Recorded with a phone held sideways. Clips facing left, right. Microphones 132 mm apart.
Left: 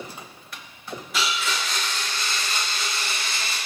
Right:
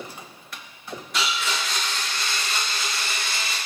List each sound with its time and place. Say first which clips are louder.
1.1 s a blender: even; centre (ahead or behind), 0.8 m